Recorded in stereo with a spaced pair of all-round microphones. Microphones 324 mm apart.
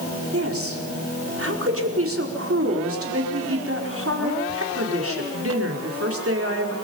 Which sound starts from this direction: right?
A woman speaking, at 0.3 s.